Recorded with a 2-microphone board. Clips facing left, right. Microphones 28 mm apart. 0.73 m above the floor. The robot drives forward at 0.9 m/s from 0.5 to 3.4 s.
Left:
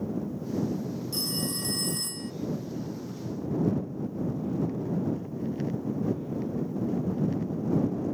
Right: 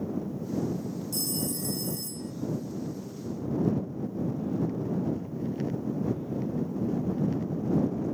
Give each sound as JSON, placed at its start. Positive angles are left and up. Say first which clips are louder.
{"t": 1.1, "sound": "a phone ringing", "louder": "left 2 dB", "side_deg": 35, "distance_m": 1.0}